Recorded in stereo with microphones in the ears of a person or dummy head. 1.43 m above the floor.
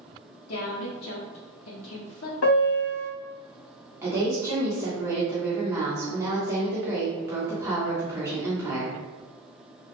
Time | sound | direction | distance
0.5 | a woman speaking | 85° left | 0.7 m
2.4 | a piano | 80° left | 0.8 m
4.0 | a woman speaking | 15° right (ahead or behind) | 1.0 m